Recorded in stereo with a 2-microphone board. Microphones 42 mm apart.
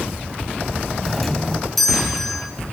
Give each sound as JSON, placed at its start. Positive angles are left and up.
{"t": 1.0, "sound": "a doorbell", "side_deg": 5, "distance_m": 4.0}